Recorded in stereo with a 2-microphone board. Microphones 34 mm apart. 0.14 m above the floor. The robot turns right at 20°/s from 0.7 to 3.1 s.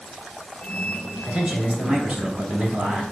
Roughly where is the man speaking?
Right.